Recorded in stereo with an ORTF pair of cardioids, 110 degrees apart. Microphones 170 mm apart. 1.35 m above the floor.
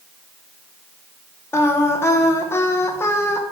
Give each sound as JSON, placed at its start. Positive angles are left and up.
{"t": 1.5, "sound": "singing", "azimuth_deg": 15, "distance_m": 0.8}